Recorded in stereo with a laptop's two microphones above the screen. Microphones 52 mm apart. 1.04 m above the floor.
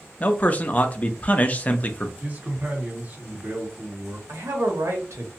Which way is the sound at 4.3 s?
70° right (ahead or behind).